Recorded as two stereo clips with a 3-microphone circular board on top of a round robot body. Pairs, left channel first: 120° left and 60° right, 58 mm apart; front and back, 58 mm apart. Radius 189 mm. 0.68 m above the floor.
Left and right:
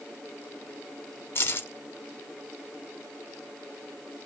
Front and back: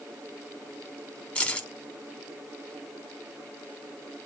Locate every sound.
1.4 s keys jangling: 70° left, 1.7 m